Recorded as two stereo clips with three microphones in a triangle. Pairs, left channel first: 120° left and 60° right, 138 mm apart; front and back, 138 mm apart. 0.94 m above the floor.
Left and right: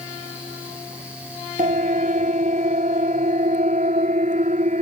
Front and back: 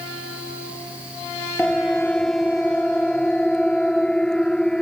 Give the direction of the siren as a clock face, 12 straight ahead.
3 o'clock.